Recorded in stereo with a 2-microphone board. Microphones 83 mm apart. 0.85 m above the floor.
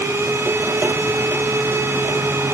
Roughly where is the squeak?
I don't hear a squeak.